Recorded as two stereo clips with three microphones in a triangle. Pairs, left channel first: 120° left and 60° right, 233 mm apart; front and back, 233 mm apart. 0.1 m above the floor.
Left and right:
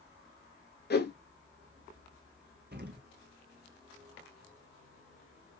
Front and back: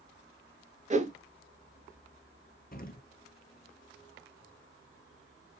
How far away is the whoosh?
About 0.5 m.